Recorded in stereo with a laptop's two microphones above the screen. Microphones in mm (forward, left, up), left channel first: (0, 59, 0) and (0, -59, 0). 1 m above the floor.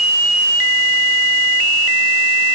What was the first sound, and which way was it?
Only background noise.